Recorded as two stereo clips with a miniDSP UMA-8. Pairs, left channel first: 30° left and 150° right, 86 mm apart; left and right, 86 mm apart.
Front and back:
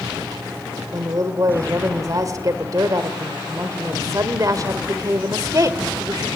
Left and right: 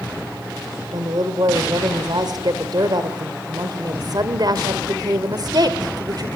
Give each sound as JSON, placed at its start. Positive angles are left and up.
{"t": 0.9, "sound": "a woman speaking", "azimuth_deg": -110, "distance_m": 2.0}